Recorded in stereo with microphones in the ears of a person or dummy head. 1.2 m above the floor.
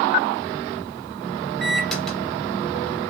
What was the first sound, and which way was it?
A microwave, 5° left (ahead or behind).